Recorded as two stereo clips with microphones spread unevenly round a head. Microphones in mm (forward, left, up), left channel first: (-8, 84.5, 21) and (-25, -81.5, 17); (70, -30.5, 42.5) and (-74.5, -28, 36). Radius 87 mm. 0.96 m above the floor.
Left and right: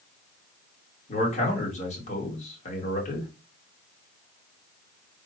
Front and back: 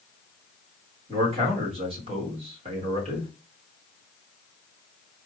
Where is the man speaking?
130° left, 1.4 m.